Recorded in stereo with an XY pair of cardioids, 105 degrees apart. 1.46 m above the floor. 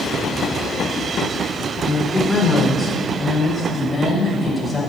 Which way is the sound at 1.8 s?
15° left.